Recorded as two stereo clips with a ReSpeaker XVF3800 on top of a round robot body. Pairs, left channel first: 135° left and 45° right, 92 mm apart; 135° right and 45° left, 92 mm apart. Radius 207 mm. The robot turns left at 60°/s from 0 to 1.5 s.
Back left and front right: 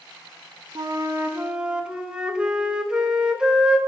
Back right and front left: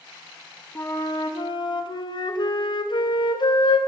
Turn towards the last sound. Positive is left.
turn(degrees=-125)